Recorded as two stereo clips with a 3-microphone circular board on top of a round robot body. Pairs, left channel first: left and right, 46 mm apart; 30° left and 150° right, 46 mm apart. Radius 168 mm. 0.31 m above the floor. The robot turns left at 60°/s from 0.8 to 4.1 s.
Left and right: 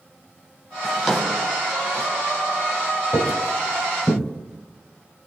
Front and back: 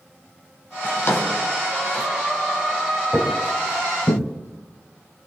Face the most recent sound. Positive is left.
turn(degrees=25)